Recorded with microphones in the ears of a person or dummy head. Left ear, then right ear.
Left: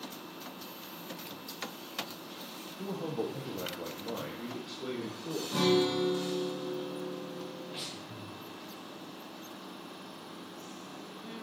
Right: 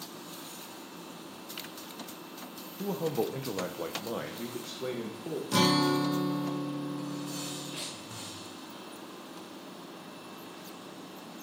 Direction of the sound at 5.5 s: 80° right.